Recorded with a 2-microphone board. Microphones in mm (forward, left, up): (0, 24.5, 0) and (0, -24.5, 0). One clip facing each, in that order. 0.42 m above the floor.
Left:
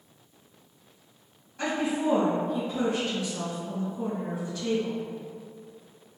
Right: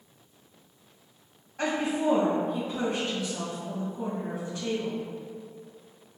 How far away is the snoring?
No snoring in this recording.